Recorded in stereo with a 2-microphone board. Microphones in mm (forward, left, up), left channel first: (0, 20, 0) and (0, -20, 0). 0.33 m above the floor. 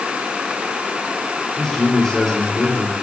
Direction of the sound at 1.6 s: 10° left (ahead or behind).